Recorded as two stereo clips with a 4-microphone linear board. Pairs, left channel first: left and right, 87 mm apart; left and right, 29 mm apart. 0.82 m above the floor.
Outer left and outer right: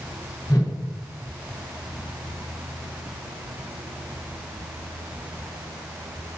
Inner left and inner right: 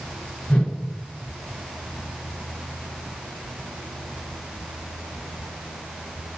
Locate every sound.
0.5 s a whoosh: 45° left (ahead or behind), 3 m